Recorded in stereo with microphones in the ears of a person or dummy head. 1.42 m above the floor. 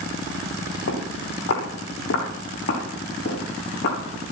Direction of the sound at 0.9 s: 70° left (ahead or behind).